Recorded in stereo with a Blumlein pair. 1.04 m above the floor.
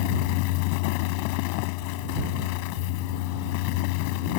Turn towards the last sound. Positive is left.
turn(degrees=45)